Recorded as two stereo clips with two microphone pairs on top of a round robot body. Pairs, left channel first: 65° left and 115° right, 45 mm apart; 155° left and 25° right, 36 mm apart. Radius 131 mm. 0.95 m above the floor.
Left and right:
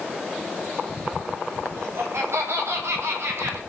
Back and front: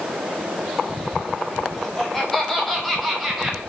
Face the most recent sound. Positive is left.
turn(degrees=-115)